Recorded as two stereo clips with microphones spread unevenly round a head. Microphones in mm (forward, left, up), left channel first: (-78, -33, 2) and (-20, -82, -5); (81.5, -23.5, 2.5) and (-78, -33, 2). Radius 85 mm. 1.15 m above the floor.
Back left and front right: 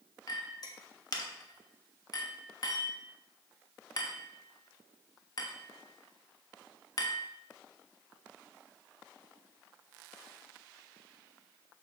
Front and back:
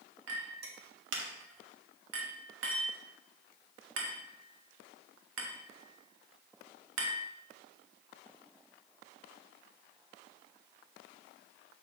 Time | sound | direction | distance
0.3 | a clink | 175° left | 1.2 m